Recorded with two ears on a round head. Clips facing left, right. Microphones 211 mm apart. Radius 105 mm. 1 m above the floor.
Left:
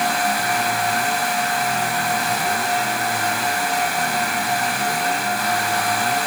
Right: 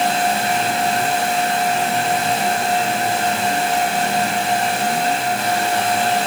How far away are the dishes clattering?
I don't hear dishes clattering.